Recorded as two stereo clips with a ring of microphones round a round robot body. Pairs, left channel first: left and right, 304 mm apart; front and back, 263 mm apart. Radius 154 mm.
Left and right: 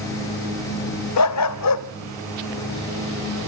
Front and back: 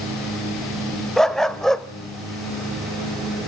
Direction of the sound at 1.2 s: 90° left.